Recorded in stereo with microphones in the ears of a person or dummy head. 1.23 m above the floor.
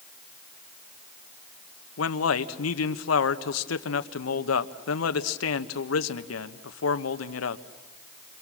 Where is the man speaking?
75° left (ahead or behind), 1.1 m.